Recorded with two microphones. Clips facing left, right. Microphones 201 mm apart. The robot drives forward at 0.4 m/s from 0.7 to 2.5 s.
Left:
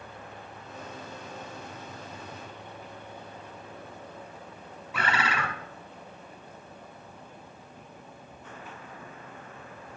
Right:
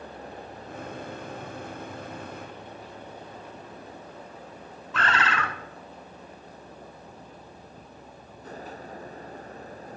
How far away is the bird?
About 1.3 m.